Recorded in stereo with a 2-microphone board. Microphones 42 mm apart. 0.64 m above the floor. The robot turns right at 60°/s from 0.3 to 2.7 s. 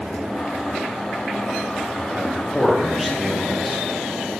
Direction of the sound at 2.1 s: 40° right.